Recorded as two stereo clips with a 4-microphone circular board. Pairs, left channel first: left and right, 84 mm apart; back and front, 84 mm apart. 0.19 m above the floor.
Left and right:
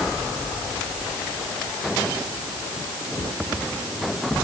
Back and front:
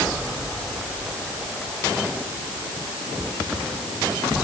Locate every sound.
Only background noise.